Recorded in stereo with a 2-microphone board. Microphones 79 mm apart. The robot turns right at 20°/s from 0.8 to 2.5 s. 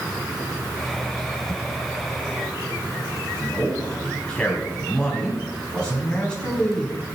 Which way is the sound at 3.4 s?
10° left (ahead or behind).